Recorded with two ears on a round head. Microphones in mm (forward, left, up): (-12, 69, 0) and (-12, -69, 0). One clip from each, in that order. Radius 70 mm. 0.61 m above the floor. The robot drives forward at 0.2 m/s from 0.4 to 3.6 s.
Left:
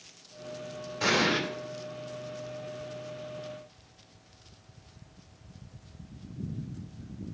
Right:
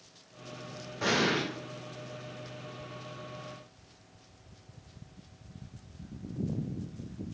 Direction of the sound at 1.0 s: 70° left (ahead or behind).